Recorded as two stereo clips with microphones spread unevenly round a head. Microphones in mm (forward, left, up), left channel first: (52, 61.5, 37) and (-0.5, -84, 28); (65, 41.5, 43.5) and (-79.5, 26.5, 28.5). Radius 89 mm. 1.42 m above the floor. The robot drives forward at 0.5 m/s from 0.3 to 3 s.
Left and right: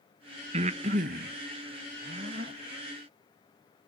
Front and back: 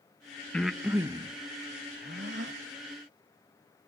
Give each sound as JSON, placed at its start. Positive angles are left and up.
{"t": 0.5, "sound": "breathing", "azimuth_deg": -70, "distance_m": 0.7}